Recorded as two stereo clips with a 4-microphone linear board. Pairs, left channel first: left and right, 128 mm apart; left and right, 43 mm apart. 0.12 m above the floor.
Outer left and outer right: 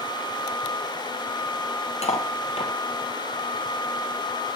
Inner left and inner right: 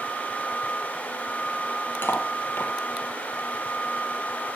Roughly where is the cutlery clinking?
Left.